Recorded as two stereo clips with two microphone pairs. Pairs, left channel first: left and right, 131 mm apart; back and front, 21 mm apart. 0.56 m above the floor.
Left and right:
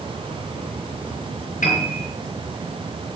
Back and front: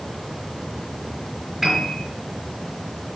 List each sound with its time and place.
1.6 s a piano: 90° left, 4.5 m